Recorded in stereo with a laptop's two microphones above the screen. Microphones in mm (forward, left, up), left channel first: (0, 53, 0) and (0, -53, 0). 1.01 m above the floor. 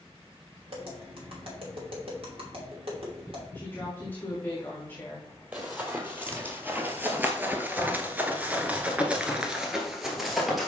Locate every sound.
0.7 s tapping: 60° right (ahead or behind), 3 m
3.5 s a woman speaking: 15° left (ahead or behind), 1.7 m
5.5 s running footsteps: 15° right (ahead or behind), 2 m; by 10.7 s centre (ahead or behind), 1.5 m